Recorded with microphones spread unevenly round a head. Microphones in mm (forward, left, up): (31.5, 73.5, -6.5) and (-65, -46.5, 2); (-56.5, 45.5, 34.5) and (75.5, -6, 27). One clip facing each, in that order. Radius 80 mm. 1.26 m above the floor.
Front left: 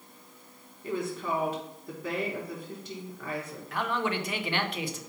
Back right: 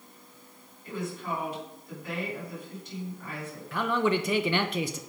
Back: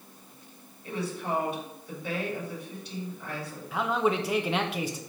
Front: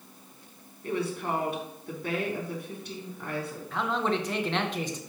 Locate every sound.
0.8 s a woman speaking: 15° left, 3.5 m
3.7 s a man speaking: 120° right, 1.0 m